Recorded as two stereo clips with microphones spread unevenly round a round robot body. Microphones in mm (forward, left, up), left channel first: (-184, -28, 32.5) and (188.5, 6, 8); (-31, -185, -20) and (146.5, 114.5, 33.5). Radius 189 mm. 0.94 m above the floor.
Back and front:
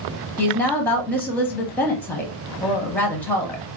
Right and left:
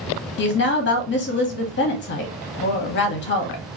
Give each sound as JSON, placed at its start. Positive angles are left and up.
{"t": 0.4, "sound": "a woman speaking", "azimuth_deg": -85, "distance_m": 0.7}